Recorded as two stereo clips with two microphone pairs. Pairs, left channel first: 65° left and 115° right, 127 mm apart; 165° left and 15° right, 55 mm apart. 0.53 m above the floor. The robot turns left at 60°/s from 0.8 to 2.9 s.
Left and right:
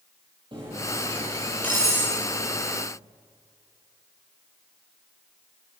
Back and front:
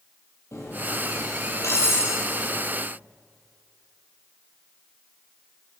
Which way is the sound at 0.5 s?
165° right.